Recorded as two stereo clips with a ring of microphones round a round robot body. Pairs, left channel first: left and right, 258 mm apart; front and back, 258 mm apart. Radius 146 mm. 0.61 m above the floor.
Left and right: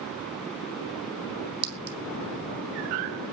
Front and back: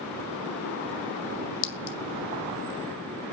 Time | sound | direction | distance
1.6 | a clink | 40° right | 2 m